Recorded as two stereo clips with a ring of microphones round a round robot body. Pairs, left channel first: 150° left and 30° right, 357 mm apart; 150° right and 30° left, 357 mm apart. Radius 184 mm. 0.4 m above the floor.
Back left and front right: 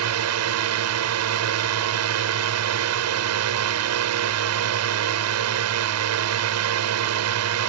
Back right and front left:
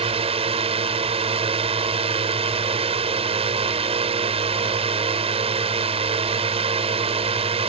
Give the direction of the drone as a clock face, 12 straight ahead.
1 o'clock.